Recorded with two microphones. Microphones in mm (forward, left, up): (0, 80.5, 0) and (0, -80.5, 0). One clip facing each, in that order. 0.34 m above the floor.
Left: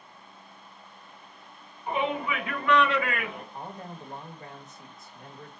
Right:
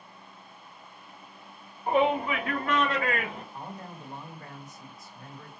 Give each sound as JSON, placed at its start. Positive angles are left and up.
{"t": 1.9, "sound": "a shout", "side_deg": -60, "distance_m": 3.0}
{"t": 3.5, "sound": "a man speaking", "side_deg": 25, "distance_m": 1.5}